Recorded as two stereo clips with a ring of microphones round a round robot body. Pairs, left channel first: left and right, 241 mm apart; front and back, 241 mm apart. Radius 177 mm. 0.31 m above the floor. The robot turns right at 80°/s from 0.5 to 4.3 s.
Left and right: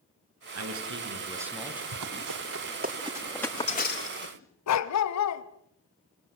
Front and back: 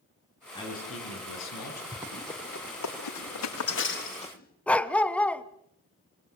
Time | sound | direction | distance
0.6 | a man speaking | 80° right | 6 m
1.9 | running footsteps | 105° right | 7.5 m
4.7 | a dog barking | 85° left | 1.5 m